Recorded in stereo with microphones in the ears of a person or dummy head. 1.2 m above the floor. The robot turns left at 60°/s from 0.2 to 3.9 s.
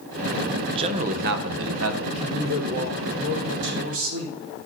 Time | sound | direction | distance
0.7 | a man speaking | 20° right | 0.7 m
2.0 | a man speaking | 25° right | 3.5 m